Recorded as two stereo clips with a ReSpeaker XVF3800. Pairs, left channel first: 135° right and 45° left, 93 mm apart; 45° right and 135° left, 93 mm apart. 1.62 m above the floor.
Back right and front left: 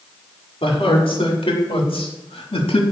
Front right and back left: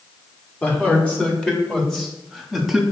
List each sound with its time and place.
0.6 s a man speaking: 120° right, 4 m; by 2.8 s 140° right, 3 m